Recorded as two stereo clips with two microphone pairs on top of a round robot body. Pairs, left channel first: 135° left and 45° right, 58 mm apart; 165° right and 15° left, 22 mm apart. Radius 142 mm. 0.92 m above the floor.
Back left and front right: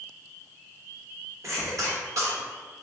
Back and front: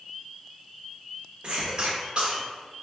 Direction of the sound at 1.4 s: 30° right.